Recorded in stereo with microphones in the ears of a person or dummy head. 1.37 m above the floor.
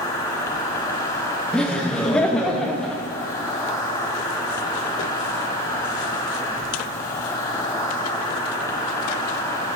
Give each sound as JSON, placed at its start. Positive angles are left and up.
{"t": 0.0, "sound": "an insect", "side_deg": 15, "distance_m": 1.0}
{"t": 1.5, "sound": "laughter", "side_deg": 0, "distance_m": 0.6}